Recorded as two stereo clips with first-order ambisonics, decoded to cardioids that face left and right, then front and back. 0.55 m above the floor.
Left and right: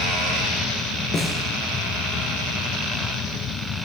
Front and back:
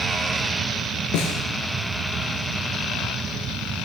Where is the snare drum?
20° left, 2.5 m.